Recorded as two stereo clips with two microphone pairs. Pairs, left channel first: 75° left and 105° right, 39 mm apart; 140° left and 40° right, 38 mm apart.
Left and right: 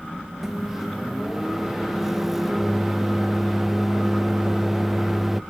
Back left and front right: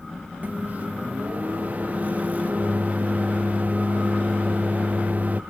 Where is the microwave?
20° right.